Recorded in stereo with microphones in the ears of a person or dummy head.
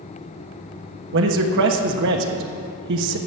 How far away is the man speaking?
About 1.2 m.